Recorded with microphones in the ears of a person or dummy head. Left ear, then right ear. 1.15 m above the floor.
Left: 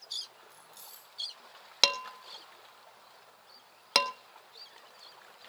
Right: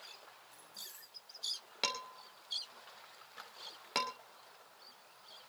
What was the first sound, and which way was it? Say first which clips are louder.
Keys jangling: right 1 dB; 75° left (ahead or behind).